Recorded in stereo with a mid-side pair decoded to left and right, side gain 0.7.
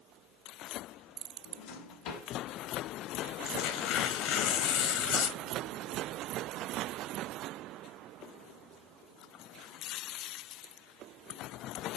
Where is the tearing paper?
55° left, 4.5 m.